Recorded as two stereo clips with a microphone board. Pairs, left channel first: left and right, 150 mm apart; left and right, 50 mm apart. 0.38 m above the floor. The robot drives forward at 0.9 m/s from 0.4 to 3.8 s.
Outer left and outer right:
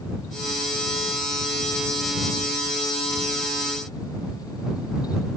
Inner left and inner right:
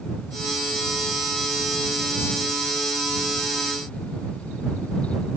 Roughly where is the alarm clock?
I don't hear an alarm clock.